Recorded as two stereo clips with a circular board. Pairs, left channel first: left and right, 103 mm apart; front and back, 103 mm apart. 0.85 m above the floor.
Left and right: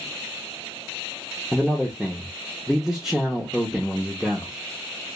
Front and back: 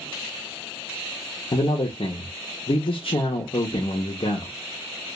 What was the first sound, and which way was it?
A man speaking, 5° right.